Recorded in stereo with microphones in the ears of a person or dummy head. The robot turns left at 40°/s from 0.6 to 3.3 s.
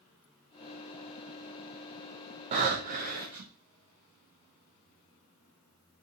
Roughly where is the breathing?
Ahead right.